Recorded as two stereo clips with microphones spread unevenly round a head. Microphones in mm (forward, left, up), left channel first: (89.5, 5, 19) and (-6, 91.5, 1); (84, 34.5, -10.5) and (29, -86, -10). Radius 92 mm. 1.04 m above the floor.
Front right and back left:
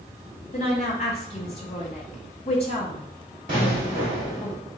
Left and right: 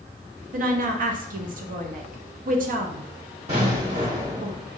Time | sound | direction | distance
0.5 | a woman speaking | 100° right | 0.7 m
3.5 | an explosion | 175° right | 1.6 m